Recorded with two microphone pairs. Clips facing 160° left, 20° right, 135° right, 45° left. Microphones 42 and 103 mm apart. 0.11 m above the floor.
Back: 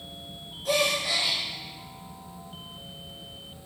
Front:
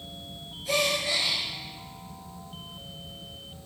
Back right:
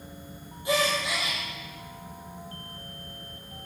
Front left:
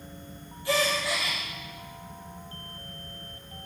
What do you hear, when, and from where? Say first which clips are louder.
0.7 s a gasp: back 1 dB, even; 155° left, 3 m